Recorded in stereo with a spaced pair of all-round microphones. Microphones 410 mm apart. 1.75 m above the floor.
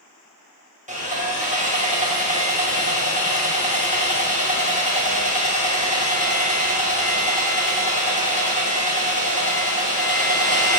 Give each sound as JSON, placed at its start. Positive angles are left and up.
{"t": 0.9, "sound": "sawing", "side_deg": -15, "distance_m": 2.0}